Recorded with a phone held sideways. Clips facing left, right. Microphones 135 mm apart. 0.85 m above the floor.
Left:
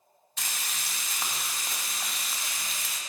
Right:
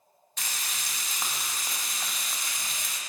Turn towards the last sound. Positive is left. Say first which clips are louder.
# even
turn(degrees=5)  # may be behind; listen again after turning